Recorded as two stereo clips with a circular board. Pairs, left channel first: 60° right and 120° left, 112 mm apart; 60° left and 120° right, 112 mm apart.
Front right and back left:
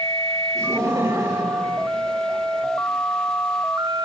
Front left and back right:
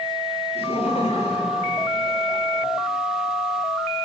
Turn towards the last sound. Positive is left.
turn(degrees=65)